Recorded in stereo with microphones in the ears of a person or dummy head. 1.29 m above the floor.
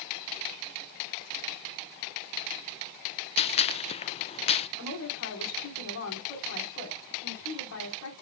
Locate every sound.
3.4 s a gunshot: 30° left (ahead or behind), 0.5 m
4.8 s a woman speaking: 80° left, 4 m